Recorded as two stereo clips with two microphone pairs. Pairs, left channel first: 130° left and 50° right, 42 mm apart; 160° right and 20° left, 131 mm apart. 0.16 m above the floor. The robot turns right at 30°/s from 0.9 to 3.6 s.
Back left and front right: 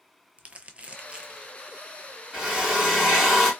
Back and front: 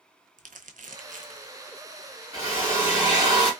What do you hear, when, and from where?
0.4 s crumpling: 10° left, 0.5 m; by 1.5 s 25° left, 0.5 m
2.3 s a drill: 10° left, 1.8 m; by 3.5 s 45° left, 1.8 m